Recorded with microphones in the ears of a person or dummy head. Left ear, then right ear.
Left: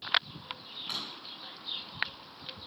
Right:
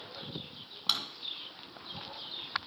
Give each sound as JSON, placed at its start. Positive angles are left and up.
{"t": 0.9, "sound": "a drawer", "side_deg": -70, "distance_m": 1.8}